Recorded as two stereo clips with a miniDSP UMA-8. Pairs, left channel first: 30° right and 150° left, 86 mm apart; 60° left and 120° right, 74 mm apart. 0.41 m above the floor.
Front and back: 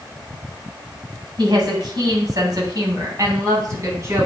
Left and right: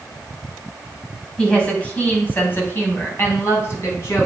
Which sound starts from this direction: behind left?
A woman speaking, at 1.4 s.